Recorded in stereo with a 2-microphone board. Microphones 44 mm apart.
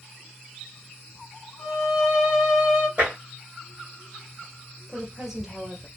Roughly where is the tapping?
Right.